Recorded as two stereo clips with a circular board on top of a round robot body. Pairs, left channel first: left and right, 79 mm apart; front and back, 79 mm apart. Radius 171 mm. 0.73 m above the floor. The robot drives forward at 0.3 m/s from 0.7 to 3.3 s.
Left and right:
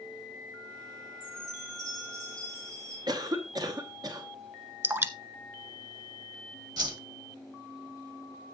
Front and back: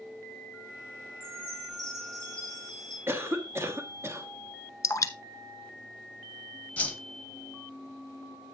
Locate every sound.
1.2 s a chime: 135° right, 5 m; by 3.0 s 140° right, 5.5 m
3.1 s a cough: 120° right, 1.3 m; by 4.3 s 125° right, 1.4 m
4.8 s dripping: 40° right, 1.3 m
6.8 s a whoosh: 70° right, 1.9 m